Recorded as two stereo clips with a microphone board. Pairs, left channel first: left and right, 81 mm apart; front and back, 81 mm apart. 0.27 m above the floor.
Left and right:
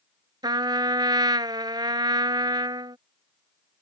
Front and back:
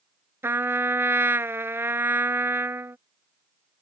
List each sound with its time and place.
0.4 s a trumpet: 120° right